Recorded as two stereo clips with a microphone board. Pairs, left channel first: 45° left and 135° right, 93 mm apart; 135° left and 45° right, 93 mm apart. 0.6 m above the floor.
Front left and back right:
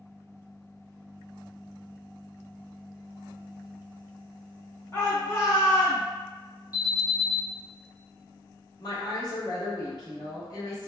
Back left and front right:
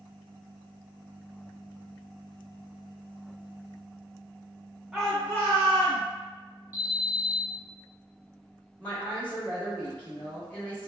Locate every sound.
4.9 s a shout: 30° left, 0.9 m; by 6.0 s 105° left, 1.6 m
6.7 s an alarm: 70° right, 1.5 m
8.8 s a woman speaking: 65° left, 1.2 m